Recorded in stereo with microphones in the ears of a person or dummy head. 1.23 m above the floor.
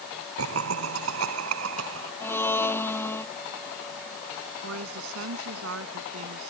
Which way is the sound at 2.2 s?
5° left (ahead or behind).